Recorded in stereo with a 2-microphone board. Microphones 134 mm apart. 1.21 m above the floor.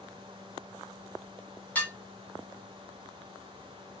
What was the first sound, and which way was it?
Dishes clattering, 10° left (ahead or behind).